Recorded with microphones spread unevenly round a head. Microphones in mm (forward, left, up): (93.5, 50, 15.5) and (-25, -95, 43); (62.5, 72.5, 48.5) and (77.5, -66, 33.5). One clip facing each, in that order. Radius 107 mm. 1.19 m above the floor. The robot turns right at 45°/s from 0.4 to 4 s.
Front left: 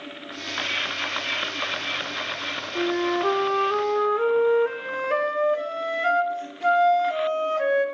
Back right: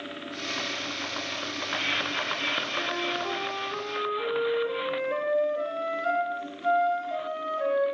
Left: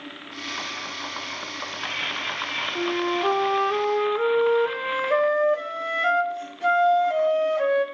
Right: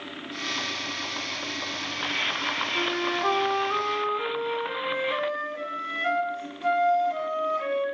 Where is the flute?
20° left, 1.8 m; by 7.8 s 80° left, 1.8 m.